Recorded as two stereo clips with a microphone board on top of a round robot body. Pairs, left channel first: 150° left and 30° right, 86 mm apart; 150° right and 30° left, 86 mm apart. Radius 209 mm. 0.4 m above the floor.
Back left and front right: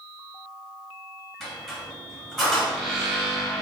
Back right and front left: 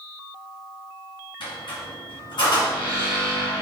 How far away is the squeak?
About 1.2 m.